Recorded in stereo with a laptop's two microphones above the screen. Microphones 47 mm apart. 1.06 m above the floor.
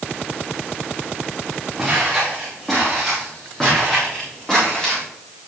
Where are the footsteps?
Centre (ahead or behind), 5 m; by 5.0 s 20° left (ahead or behind), 7.5 m.